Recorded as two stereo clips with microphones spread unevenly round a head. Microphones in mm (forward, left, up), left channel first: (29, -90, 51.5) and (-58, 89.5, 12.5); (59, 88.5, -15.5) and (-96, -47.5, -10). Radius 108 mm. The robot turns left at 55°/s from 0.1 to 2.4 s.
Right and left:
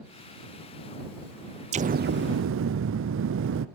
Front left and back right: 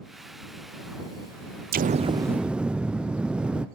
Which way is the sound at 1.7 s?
175° left.